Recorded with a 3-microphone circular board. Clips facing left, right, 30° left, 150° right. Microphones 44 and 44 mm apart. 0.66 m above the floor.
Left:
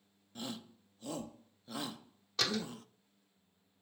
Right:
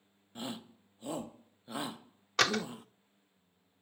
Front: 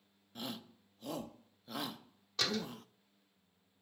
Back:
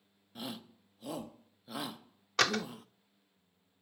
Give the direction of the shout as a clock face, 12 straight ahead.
2 o'clock.